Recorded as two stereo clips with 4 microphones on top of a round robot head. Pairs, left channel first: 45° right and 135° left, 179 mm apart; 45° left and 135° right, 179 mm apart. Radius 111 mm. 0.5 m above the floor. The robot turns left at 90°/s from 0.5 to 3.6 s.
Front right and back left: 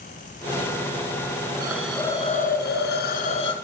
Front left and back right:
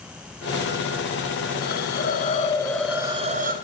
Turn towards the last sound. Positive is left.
turn(degrees=-110)